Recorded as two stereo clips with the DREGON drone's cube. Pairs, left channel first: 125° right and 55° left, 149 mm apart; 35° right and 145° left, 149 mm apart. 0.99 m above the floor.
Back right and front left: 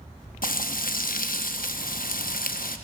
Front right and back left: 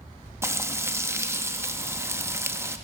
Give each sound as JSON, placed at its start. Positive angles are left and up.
{"t": 0.4, "sound": "frying", "azimuth_deg": -140, "distance_m": 0.7}